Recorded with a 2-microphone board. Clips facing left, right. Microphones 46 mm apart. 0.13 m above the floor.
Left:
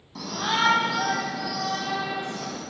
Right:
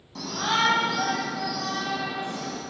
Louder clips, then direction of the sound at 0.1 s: Even; 5° left (ahead or behind).